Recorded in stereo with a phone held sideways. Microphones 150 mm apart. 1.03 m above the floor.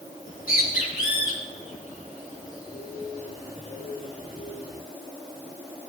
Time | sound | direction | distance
0.2 | a bird | 75° left (ahead or behind) | 4.5 m